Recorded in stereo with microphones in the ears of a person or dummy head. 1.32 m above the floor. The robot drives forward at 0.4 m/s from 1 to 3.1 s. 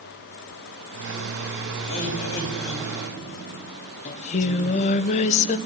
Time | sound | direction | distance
1.8 | laughter | 40° left (ahead or behind) | 4.5 m
4.0 | singing | 35° left (ahead or behind) | 0.8 m